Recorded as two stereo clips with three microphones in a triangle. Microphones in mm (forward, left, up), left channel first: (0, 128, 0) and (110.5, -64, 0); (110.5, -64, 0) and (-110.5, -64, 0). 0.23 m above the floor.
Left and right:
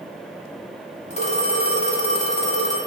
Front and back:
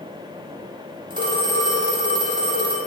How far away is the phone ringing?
About 0.6 m.